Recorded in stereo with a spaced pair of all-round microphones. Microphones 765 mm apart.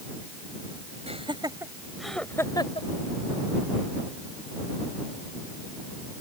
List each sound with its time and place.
1.1 s laughter: 10° right (ahead or behind); by 2.9 s 10° left (ahead or behind)